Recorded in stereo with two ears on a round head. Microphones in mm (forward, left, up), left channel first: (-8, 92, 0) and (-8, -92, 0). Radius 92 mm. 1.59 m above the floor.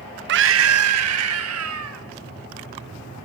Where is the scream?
55° right (ahead or behind), 1.1 m; by 2.0 s 80° right, 3.5 m.